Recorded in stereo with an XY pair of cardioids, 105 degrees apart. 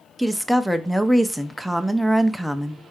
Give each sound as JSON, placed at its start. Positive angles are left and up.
{"t": 0.2, "sound": "a woman speaking", "azimuth_deg": -5, "distance_m": 0.6}